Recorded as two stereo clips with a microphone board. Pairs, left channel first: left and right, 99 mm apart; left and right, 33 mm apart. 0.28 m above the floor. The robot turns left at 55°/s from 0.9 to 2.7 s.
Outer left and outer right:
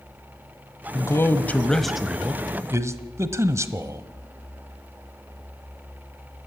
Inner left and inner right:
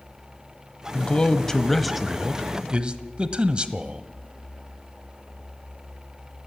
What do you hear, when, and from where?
0.9 s a man speaking: 50° left, 1.3 m; by 4.1 s 45° right, 1.3 m